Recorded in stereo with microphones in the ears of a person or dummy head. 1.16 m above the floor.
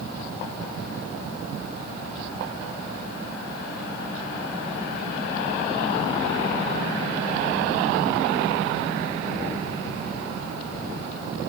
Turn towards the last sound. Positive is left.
No sound to turn to.